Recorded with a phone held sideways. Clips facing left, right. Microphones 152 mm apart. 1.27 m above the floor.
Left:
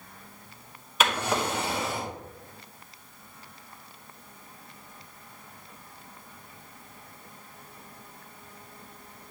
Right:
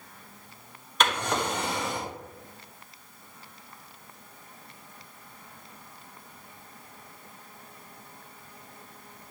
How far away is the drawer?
About 1.8 m.